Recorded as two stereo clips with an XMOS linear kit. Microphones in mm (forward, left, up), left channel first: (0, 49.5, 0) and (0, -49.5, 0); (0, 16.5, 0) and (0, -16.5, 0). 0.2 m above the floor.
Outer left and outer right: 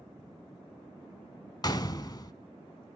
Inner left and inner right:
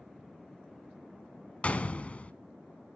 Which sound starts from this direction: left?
A gunshot, at 1.6 s.